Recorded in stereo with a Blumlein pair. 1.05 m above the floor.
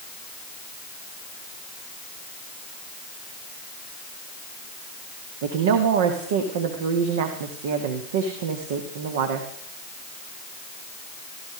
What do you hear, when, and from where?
5.4 s a woman speaking: 55° right, 1.7 m